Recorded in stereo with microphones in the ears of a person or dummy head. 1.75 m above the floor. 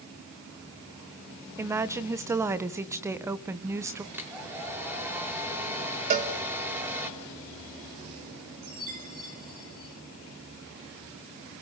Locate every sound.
1.6 s a woman speaking: 10° right (ahead or behind), 1.6 m
4.1 s a hair dryer: 15° right (ahead or behind), 4.5 m
6.1 s a cowbell: 45° right (ahead or behind), 3.5 m
8.6 s a chime: 40° right (ahead or behind), 4.5 m